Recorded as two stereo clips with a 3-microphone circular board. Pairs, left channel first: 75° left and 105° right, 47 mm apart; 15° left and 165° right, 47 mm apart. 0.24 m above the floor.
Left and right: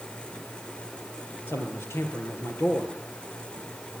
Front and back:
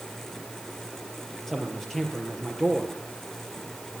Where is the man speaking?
95° left, 4.5 m.